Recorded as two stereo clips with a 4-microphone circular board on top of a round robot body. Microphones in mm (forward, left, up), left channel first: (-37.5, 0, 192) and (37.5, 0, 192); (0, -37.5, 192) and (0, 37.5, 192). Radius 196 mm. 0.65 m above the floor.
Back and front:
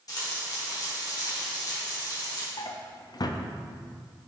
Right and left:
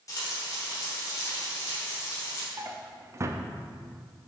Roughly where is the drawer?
Behind left.